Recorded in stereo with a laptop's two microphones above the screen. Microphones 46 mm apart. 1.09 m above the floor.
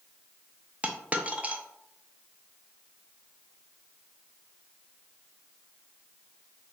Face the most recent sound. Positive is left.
turn(degrees=-30)  # may be behind; listen again after turning